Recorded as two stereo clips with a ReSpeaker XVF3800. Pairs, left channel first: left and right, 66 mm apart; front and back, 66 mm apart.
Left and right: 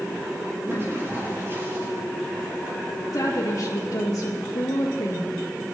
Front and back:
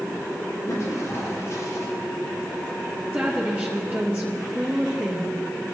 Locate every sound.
0.7 s a toilet flushing: 40° right, 6 m
3.1 s a woman speaking: 110° left, 3.5 m